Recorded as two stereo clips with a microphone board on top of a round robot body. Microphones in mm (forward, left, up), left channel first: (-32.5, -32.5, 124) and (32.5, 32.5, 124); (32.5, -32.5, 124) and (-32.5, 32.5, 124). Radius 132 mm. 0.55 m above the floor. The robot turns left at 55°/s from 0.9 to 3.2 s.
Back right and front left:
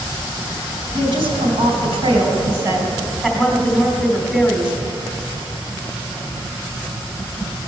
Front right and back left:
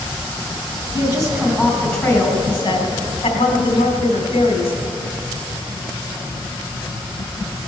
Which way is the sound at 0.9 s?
90° left.